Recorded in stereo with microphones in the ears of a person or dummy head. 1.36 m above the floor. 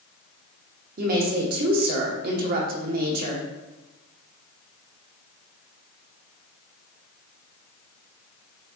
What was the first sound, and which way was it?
A woman speaking, 45° right (ahead or behind).